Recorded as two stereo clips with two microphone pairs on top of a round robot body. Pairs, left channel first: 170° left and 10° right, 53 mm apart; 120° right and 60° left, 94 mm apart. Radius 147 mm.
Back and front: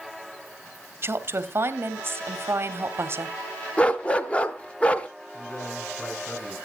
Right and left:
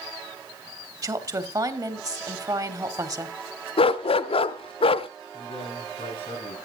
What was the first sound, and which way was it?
A woman speaking, 15° left.